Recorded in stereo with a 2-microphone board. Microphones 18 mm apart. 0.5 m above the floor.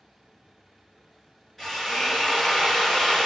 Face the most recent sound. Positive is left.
turn(degrees=10)  # may be behind; listen again after turning